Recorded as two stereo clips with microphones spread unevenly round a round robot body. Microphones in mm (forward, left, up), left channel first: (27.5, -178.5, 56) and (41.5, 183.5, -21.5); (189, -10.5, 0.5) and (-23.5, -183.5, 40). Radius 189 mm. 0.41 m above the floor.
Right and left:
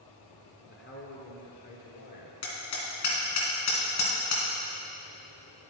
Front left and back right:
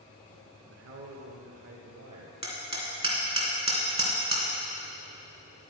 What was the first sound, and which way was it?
A man speaking, 160° right.